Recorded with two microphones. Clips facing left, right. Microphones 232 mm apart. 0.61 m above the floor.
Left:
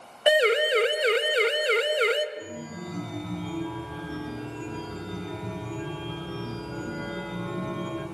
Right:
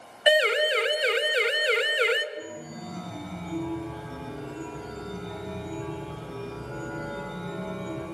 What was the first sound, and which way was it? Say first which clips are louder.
A siren: left 2 dB; 45° left (ahead or behind).